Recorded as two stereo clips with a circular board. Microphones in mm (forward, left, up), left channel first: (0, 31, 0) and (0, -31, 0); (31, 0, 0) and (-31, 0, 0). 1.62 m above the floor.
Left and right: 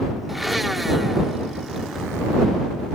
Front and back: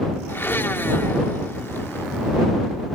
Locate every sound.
0.3 s a blender: 5° right